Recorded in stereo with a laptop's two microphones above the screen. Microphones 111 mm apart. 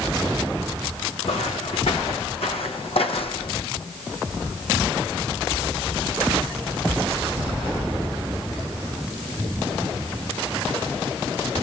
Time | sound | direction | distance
1.2 | footsteps | 75° left (ahead or behind) | 4 m